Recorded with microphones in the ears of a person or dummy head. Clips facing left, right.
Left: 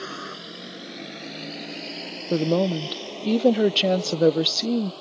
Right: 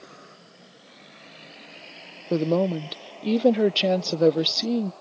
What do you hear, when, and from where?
0.0 s a vehicle: 85° left; by 5.0 s 40° left (ahead or behind)
2.3 s a woman speaking: centre (ahead or behind)